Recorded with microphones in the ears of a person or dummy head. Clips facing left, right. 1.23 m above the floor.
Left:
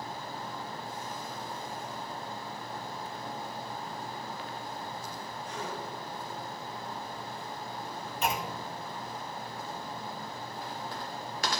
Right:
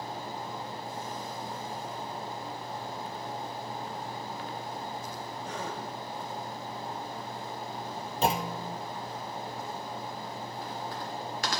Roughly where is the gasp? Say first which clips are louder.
Right 1 dB; right.